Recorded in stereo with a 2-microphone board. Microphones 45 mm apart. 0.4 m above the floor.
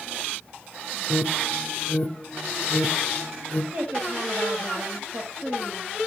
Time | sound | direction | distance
1.1 | an alarm | 20° left (ahead or behind) | 1.0 m
3.7 | a woman speaking | 55° right (ahead or behind) | 2 m